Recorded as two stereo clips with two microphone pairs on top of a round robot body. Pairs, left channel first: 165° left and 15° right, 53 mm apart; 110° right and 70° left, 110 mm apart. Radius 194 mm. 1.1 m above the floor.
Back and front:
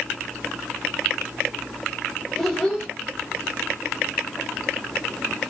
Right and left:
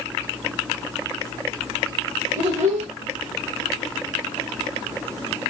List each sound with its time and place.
2.4 s a child speaking: 80° left, 0.9 m